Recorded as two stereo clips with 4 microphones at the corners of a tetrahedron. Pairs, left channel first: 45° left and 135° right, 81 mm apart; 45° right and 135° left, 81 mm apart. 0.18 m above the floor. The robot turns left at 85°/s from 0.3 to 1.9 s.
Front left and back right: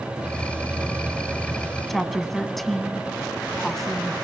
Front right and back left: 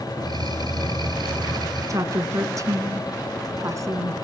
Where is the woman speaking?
135° left, 1.7 m.